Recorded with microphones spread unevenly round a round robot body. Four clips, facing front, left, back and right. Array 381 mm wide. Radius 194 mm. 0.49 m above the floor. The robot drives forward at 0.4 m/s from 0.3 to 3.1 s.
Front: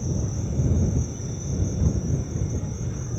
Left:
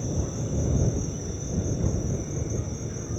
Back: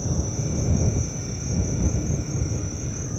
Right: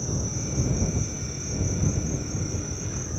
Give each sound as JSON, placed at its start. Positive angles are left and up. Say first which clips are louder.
{"t": 0.0, "sound": "an insect", "louder": "left 1 dB, back 1 dB", "azimuth_deg": 155, "distance_m": 1.1}